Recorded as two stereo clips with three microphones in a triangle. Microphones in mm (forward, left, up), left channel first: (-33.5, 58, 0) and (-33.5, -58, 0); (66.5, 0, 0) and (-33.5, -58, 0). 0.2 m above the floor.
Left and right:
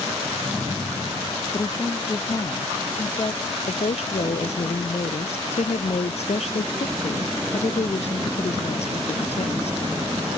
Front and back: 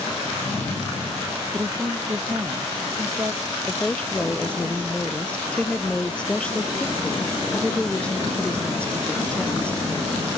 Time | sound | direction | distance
1.5 | a woman speaking | 145° left | ?
3.7 | a woman speaking | 110° left | ?